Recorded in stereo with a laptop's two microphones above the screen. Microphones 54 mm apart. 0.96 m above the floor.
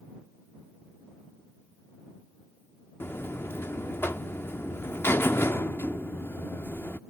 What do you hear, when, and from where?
3.0 s a buzzer: 45° left (ahead or behind)